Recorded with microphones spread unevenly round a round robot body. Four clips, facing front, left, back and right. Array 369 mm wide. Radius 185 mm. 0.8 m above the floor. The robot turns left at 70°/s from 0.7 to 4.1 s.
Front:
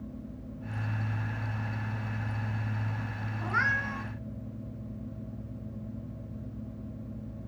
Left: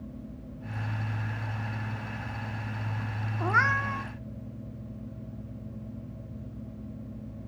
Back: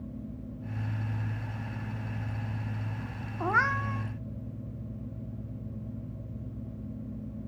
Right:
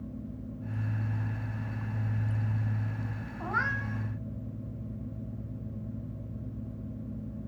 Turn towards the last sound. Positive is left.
turn(degrees=100)